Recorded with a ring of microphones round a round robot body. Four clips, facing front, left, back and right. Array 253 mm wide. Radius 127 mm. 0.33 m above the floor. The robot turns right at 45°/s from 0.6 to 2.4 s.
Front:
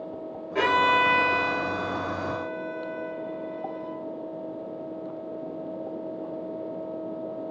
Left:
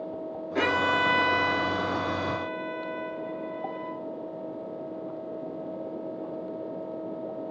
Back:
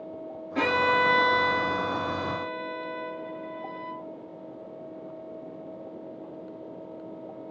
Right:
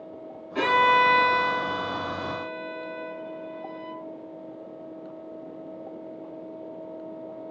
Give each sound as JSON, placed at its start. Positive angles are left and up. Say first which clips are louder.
{"t": 0.6, "sound": "a violin", "louder": "right 5 dB, front 2 dB", "azimuth_deg": 15, "distance_m": 3.5}